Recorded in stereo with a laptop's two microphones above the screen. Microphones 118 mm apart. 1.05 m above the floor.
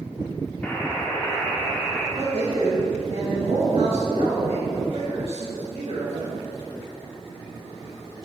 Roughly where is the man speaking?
Right.